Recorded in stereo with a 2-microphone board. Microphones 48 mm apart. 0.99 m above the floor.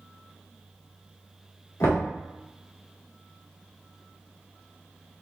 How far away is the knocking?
About 1.8 m.